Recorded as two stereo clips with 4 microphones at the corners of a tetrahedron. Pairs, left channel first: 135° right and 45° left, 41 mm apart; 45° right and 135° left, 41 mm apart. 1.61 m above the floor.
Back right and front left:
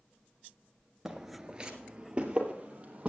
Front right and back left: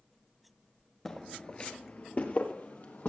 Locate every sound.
1.1 s footsteps: 10° left, 1.6 m; by 3.1 s 10° right, 3.5 m